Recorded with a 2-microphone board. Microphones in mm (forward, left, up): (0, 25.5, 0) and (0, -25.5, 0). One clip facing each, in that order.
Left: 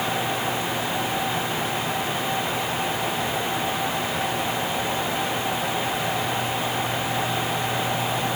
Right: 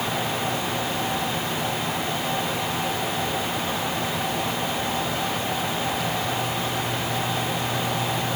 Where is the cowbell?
No cowbell in this recording.